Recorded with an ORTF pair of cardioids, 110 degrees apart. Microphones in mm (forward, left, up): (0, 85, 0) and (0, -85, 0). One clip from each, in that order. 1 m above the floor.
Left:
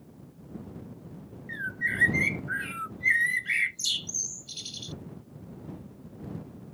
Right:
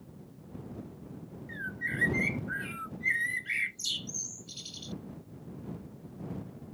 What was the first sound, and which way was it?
A bird, 25° left.